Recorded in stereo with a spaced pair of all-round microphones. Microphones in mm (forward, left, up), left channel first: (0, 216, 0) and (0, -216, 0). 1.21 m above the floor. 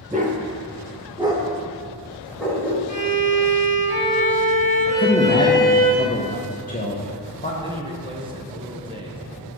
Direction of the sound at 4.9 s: 20° left (ahead or behind).